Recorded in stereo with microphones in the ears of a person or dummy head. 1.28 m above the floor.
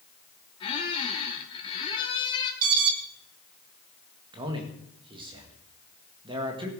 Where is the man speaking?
25° right (ahead or behind), 1.9 m.